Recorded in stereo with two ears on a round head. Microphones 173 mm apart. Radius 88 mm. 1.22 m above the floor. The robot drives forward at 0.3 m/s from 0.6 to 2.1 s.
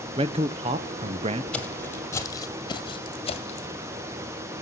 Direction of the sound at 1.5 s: 5° left (ahead or behind).